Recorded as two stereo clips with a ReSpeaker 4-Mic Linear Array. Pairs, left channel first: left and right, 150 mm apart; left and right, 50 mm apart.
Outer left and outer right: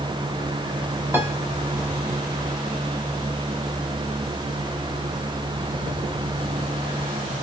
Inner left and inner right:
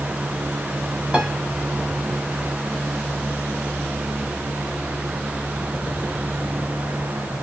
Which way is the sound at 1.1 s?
15° right (ahead or behind).